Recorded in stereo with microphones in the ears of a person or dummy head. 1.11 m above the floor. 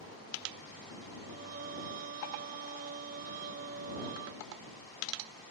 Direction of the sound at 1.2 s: 45° right (ahead or behind).